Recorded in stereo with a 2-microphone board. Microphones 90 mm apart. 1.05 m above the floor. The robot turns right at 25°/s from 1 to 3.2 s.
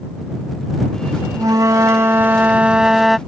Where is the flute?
45° right; by 3.2 s straight ahead.